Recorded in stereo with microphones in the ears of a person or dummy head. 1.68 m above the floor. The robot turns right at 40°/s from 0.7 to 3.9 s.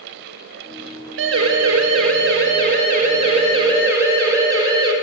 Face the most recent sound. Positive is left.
turn(degrees=-20)  # may be behind; listen again after turning